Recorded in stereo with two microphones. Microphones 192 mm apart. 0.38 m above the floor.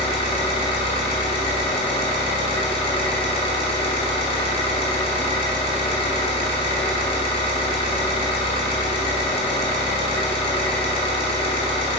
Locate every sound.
0.0 s an engine running: 30° left (ahead or behind), 0.7 m